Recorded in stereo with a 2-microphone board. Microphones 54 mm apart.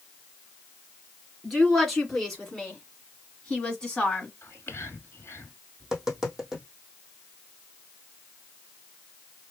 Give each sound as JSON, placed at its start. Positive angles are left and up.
{"t": 1.4, "sound": "a woman speaking", "side_deg": 0, "distance_m": 2.5}
{"t": 4.4, "sound": "whispering", "side_deg": 50, "distance_m": 1.6}
{"t": 5.8, "sound": "tapping", "side_deg": -10, "distance_m": 1.5}